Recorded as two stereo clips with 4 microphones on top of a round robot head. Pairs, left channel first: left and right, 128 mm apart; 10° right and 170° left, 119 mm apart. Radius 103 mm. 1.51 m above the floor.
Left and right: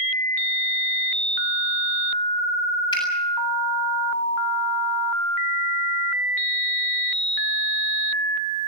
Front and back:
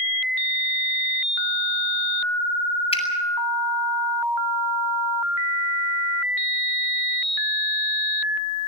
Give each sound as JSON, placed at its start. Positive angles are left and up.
{"t": 2.9, "sound": "a finger snap", "azimuth_deg": 30, "distance_m": 7.5}